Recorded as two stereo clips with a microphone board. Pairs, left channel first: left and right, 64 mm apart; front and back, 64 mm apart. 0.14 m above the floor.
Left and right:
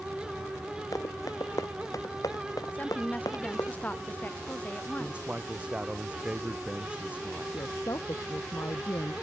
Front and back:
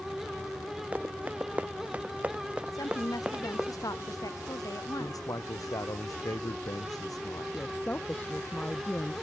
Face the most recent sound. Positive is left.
turn(degrees=60)